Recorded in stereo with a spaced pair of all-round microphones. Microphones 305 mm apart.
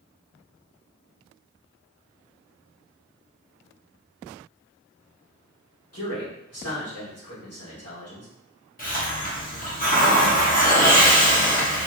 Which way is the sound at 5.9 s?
55° left (ahead or behind).